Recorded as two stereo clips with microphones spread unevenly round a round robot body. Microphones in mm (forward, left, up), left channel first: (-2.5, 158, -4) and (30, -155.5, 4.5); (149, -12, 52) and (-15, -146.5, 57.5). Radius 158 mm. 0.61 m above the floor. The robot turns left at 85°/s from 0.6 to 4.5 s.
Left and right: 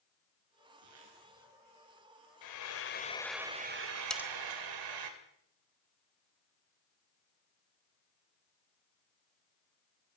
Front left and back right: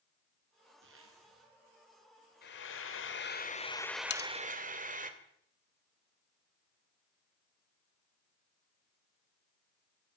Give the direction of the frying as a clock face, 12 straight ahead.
9 o'clock.